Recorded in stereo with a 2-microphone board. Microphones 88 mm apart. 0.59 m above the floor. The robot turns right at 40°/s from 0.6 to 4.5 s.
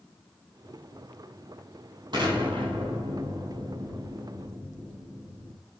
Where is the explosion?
125° right, 4.5 m; by 5.6 s 30° right, 4.5 m.